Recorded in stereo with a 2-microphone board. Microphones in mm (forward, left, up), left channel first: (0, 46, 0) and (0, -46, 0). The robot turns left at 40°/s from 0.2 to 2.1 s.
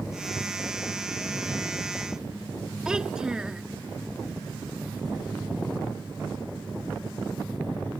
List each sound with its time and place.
2.9 s a child speaking: 10° right (ahead or behind)